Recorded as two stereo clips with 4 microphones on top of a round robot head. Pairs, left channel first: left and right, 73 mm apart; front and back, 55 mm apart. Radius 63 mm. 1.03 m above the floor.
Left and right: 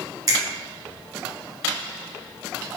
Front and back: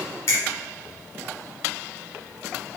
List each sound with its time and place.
0.3 s a finger snap: 55° right, 1.1 m